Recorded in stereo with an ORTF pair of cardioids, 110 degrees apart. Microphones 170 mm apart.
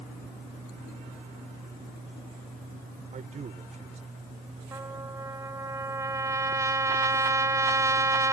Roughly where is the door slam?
I don't hear a door slam.